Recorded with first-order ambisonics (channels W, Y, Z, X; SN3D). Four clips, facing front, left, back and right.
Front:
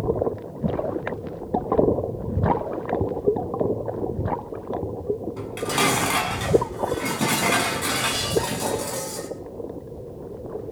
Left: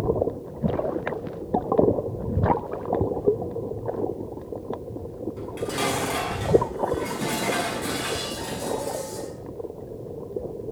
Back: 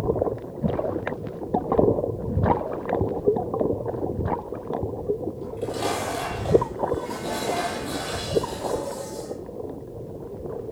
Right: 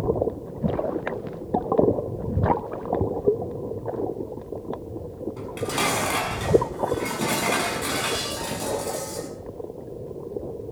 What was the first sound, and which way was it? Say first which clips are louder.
Dishes clattering: right 2 dB, front 5 dB; 20° right.